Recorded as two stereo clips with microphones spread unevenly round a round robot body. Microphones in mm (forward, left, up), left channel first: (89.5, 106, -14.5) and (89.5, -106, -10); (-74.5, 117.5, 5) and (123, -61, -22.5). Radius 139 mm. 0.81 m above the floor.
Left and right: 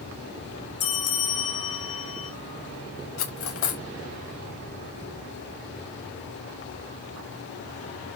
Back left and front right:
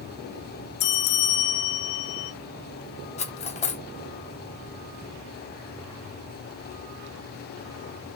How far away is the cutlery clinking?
About 1.0 m.